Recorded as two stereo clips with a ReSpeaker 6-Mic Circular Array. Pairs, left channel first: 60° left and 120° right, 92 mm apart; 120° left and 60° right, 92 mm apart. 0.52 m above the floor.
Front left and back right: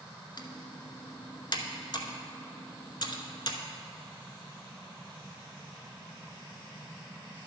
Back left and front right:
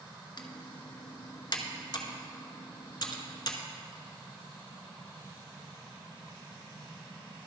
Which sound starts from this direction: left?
Typing on a keyboard, at 0.4 s.